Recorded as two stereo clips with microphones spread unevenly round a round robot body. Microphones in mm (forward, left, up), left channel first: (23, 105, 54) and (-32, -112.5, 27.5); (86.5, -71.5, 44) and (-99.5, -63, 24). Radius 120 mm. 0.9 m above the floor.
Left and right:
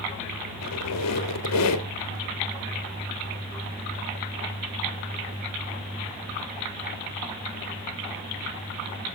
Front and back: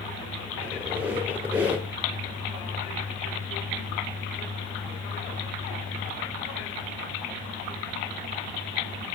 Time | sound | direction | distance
0.6 | a squeak | 90° left | 1.1 m